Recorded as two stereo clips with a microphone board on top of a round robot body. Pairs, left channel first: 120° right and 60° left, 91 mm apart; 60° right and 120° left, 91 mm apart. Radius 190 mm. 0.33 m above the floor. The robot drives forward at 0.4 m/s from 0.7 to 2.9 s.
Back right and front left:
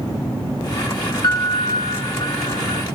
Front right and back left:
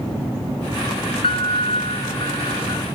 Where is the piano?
75° right, 1.3 m; by 2.8 s 105° right, 1.3 m.